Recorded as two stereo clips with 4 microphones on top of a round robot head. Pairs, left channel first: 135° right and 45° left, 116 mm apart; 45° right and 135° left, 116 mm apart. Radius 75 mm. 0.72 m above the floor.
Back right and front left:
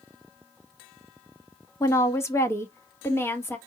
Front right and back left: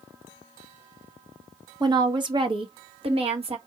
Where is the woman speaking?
170° left, 1.4 m; by 3.6 s 160° left, 2 m.